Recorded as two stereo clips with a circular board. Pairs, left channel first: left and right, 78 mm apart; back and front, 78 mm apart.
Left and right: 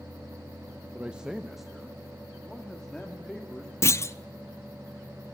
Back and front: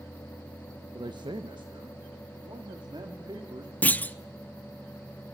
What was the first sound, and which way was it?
A man speaking, 20° right.